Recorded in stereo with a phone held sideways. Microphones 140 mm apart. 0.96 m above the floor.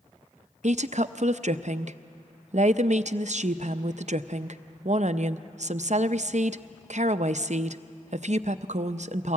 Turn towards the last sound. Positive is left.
turn(degrees=-55)  # may be behind; listen again after turning